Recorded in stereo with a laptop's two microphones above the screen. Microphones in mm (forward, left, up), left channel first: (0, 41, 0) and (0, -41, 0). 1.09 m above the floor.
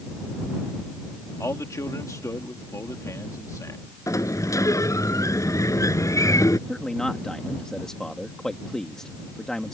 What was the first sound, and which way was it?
A man speaking, 45° left (ahead or behind).